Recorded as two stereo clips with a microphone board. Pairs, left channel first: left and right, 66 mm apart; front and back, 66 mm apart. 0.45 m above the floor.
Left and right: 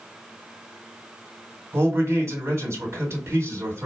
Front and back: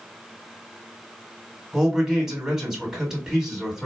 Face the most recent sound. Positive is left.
turn(degrees=-100)